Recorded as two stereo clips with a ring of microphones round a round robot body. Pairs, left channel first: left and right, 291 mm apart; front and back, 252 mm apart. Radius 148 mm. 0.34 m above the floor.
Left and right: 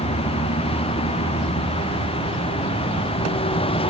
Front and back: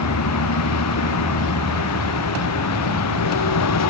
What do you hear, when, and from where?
0.0 s a vehicle: 20° left; by 3.9 s 15° left